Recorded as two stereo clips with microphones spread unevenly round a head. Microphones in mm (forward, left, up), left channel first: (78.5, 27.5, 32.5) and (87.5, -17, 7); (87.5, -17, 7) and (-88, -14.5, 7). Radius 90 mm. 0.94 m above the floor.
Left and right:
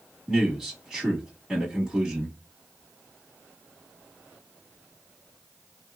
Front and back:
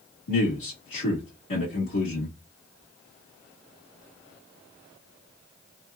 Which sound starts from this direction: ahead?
A man speaking, at 0.3 s.